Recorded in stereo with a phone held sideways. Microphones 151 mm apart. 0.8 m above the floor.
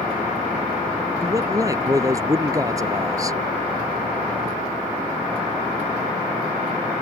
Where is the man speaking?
20° right (ahead or behind).